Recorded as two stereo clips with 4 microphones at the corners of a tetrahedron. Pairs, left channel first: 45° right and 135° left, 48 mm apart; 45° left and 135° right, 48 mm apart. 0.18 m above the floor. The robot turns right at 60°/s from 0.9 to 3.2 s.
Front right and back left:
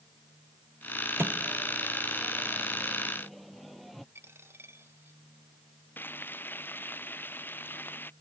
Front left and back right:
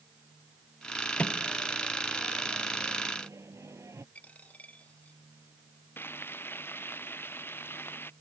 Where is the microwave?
105° left; by 4.0 s 135° right.